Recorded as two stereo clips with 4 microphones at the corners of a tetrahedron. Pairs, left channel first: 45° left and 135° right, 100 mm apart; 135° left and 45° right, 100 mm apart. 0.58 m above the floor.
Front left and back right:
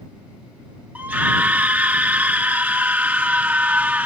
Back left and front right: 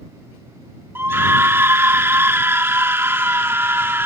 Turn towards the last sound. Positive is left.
turn(degrees=-75)